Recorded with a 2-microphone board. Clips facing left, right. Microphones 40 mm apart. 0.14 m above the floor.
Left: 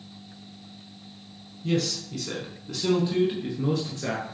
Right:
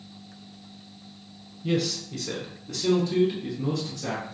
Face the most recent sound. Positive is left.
turn(degrees=40)  # may be behind; listen again after turning